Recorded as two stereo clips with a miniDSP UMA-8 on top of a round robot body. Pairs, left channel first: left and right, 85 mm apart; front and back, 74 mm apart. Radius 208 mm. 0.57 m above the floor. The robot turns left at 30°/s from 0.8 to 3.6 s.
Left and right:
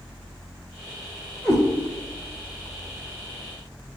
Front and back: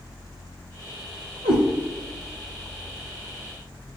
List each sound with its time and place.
1.4 s a cat meowing: 170° left, 0.9 m; by 1.6 s 165° left, 0.9 m